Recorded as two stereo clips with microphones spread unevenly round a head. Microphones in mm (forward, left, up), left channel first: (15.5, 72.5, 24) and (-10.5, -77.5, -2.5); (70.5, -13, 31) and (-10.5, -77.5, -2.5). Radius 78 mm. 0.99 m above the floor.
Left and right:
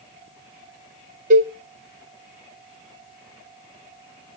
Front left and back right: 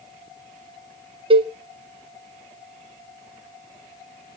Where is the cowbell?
130° right, 1.8 m.